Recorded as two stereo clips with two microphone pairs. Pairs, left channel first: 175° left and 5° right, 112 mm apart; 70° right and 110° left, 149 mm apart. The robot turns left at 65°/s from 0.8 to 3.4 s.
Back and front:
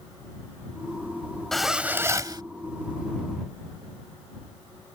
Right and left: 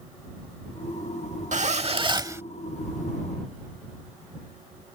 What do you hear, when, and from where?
1.5 s a zipper: 95° left; by 2.4 s 40° left